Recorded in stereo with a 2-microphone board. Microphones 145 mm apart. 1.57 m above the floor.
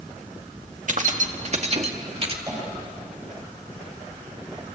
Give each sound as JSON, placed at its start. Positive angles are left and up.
{"t": 0.9, "sound": "keys jangling", "side_deg": -60, "distance_m": 1.8}
{"t": 2.5, "sound": "tapping", "side_deg": -25, "distance_m": 9.5}